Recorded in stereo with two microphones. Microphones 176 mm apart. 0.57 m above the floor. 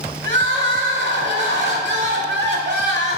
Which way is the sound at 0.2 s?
85° right.